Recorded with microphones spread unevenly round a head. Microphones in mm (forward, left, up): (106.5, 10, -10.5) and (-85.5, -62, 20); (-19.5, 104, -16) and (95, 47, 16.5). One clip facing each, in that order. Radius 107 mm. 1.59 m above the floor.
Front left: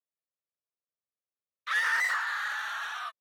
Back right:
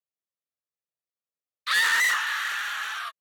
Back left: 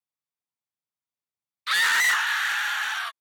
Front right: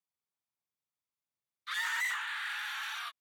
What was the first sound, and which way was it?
A scream, 175° left.